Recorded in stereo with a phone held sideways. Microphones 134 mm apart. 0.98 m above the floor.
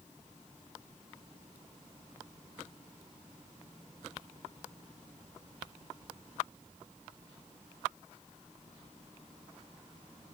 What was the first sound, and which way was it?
Only background noise.